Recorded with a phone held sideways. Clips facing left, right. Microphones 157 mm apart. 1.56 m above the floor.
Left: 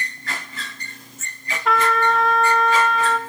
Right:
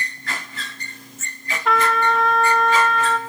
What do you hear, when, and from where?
1.6 s a trumpet: centre (ahead or behind), 1.8 m